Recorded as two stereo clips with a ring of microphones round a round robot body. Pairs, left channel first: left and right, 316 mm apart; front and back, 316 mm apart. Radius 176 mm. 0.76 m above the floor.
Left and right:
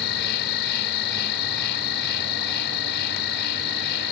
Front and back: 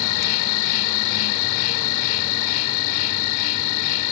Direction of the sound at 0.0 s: 30° left.